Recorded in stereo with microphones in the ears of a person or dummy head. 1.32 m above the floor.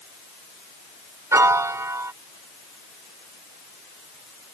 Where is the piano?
15° right (ahead or behind).